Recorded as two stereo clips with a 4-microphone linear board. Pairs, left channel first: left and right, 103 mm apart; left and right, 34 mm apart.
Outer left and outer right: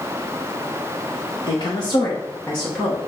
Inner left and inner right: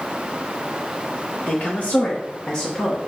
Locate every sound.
1.5 s a woman speaking: 50° left (ahead or behind), 1.0 m; by 3.0 s centre (ahead or behind), 1.1 m